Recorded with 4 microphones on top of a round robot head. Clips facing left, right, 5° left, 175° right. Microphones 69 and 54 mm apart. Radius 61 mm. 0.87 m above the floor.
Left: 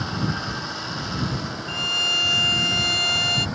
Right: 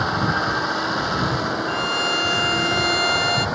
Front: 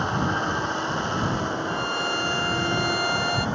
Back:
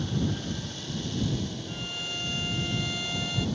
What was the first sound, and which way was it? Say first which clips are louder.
A vehicle: right 7 dB, front 7 dB; 55° right.